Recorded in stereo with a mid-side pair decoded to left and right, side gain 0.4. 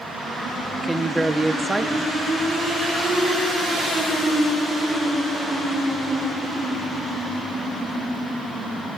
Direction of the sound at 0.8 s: 20° right.